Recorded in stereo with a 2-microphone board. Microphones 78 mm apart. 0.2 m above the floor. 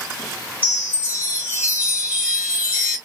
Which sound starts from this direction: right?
A chime, at 0.6 s.